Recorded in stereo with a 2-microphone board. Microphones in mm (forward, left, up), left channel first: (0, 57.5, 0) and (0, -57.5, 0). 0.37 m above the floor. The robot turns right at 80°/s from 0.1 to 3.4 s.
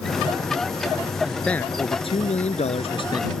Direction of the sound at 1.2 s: 10° right.